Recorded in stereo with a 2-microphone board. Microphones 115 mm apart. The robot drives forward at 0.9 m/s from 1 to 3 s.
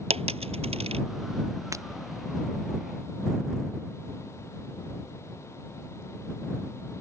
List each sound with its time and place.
0.1 s a dropped coin: 65° right (ahead or behind)
1.7 s breaking glass: 25° right (ahead or behind)